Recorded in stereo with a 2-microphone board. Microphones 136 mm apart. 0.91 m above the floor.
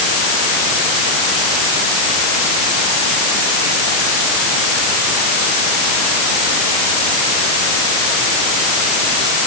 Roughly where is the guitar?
No guitar in this recording.